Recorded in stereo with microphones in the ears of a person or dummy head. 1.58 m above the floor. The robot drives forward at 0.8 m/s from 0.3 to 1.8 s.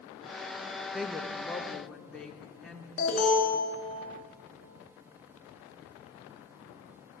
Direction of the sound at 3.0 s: 45° left (ahead or behind).